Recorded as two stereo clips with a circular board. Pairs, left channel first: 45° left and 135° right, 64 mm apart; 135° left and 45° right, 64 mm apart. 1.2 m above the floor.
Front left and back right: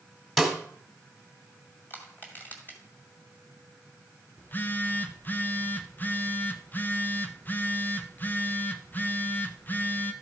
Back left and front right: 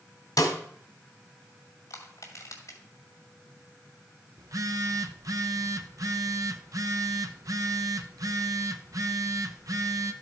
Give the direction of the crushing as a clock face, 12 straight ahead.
9 o'clock.